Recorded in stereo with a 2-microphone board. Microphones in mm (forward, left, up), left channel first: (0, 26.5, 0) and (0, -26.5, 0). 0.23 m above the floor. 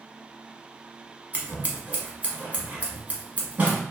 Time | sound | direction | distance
1.3 | scissors | 30° right (ahead or behind) | 1.0 m